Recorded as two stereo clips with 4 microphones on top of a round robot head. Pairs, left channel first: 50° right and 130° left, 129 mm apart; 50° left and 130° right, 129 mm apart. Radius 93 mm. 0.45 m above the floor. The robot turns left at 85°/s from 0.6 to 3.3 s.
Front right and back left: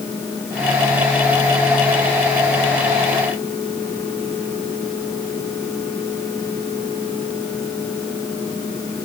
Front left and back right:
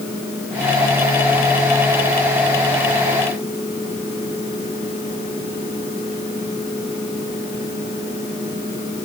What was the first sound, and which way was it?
Only background noise.